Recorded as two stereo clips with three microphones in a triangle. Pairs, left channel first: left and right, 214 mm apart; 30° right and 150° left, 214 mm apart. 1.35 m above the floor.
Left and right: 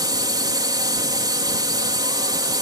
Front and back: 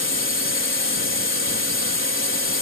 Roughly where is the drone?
Ahead.